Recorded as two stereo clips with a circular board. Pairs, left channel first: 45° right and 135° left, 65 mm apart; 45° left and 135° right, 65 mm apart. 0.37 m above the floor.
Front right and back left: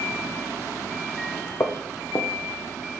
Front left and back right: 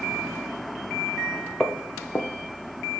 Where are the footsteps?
30° right, 0.8 m; by 3.0 s 5° left, 1.6 m.